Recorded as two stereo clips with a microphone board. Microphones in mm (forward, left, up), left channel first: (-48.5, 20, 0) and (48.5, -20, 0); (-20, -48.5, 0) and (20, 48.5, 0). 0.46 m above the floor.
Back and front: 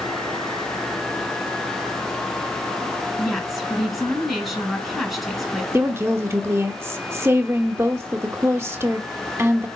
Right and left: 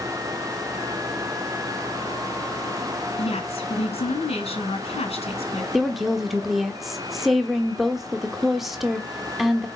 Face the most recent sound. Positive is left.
turn(degrees=-15)